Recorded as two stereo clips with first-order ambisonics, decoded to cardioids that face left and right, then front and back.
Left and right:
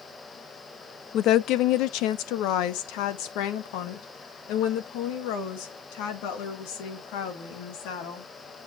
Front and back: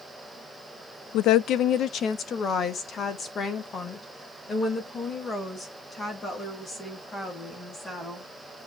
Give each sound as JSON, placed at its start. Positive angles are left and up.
{"t": 1.1, "sound": "a woman speaking", "azimuth_deg": 40, "distance_m": 0.6}